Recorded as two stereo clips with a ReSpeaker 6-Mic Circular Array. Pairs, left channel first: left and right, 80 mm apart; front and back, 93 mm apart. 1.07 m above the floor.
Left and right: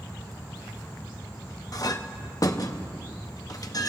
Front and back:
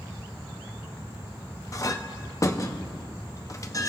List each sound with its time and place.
1.7 s a clink: 50° left, 0.7 m